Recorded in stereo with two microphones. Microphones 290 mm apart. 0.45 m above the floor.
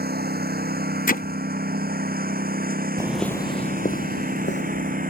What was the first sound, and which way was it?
A lawn mower, 35° right (ahead or behind).